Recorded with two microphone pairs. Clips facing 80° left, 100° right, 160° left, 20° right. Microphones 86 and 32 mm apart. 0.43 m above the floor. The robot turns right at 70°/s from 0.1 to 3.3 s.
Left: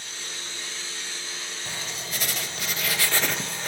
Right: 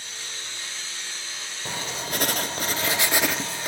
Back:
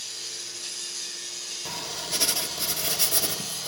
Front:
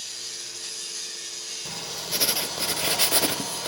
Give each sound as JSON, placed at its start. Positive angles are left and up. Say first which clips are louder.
{"t": 1.6, "sound": "writing", "louder": "right 7 dB, back 1 dB", "azimuth_deg": -130, "distance_m": 0.9}